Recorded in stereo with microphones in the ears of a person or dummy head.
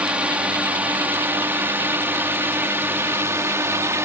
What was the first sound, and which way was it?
A drone, 5° right (ahead or behind).